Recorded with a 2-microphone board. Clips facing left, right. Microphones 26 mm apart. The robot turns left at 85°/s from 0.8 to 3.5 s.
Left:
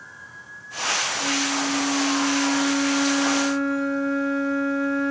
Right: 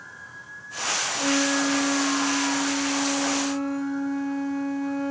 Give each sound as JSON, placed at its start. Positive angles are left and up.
{"t": 1.2, "sound": "a flute", "azimuth_deg": -80, "distance_m": 5.0}